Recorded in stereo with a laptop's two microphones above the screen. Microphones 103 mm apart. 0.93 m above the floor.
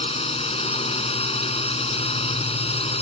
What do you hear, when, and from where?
0.0 s a drone: 75° left (ahead or behind)